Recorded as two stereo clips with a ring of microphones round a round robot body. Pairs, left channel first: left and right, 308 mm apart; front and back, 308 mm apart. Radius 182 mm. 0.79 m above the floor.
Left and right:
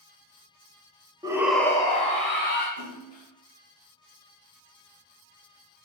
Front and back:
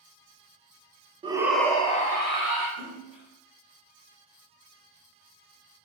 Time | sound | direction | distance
1.2 | a shout | 145° right | 0.7 m
2.8 | a splash | 55° left | 2 m